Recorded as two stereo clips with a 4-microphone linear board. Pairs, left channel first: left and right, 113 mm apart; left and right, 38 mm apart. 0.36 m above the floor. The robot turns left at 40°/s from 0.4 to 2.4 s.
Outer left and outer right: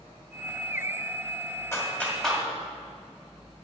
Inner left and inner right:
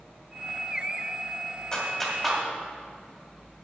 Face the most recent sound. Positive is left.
turn(degrees=0)  # may be behind; listen again after turning